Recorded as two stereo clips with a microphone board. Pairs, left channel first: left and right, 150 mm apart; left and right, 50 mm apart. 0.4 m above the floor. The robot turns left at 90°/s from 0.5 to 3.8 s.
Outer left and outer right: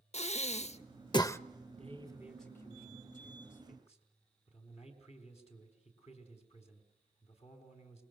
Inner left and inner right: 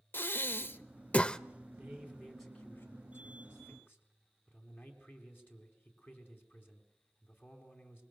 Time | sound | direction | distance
0.1 | breathing | 50° left (ahead or behind) | 0.6 m
1.7 | a man speaking | 120° right | 4 m